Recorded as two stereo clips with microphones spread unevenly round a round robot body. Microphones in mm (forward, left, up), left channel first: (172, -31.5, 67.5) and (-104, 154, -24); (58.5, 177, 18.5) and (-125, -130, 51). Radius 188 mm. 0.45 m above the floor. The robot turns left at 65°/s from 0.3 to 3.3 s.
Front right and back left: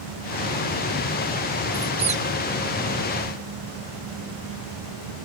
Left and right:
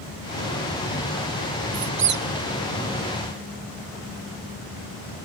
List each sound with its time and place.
1.7 s a squeak: 150° right, 1.0 m; by 2.2 s 175° left, 1.0 m